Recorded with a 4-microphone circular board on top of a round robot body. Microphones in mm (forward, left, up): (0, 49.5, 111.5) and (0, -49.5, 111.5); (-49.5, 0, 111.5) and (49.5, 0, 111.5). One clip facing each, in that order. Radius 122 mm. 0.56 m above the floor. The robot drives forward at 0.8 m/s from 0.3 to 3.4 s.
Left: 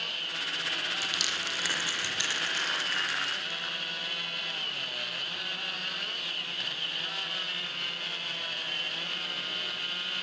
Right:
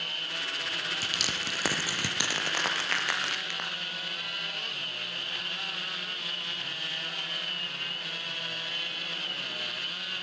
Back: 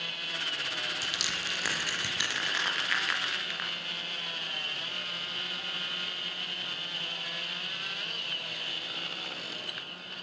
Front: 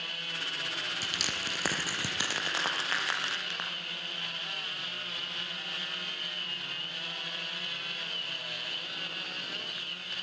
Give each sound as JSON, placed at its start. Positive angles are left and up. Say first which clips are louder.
{"t": 1.0, "sound": "crushing", "louder": "right 1 dB, even", "azimuth_deg": -45, "distance_m": 5.5}